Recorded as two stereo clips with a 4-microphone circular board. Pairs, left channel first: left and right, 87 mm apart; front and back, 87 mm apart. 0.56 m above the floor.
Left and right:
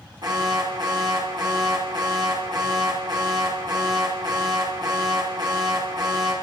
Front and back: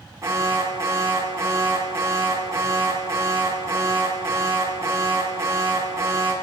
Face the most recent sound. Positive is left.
turn(degrees=-125)